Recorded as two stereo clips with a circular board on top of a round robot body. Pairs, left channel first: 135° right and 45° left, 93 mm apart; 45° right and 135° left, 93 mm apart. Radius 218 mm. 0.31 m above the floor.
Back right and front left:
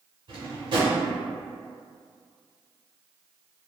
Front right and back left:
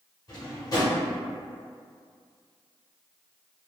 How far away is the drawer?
About 1.2 m.